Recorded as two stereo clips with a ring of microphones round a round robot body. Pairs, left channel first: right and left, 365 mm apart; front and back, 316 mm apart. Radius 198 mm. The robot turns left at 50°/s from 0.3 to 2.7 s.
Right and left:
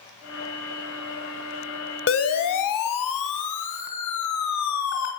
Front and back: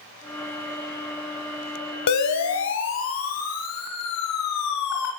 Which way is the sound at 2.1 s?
35° right.